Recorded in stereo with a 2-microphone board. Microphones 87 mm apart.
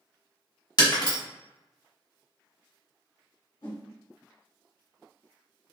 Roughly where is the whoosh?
Left.